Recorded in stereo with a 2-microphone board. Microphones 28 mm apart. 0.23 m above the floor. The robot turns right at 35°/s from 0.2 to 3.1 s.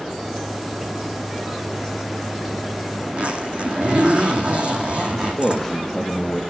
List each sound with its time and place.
3.1 s a zipper: 45° right (ahead or behind), 2 m
5.1 s a man speaking: 10° left (ahead or behind), 4.5 m